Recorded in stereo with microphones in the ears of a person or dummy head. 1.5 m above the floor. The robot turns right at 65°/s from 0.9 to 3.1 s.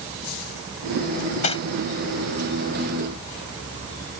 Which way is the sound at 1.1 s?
60° left (ahead or behind).